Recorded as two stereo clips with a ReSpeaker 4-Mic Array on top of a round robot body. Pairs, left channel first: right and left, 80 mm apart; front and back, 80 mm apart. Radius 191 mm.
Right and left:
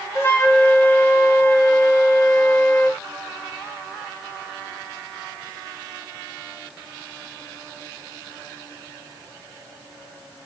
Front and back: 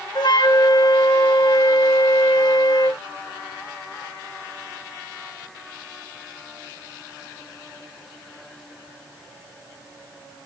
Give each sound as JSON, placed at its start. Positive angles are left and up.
{"t": 0.1, "sound": "a flute", "azimuth_deg": -30, "distance_m": 1.6}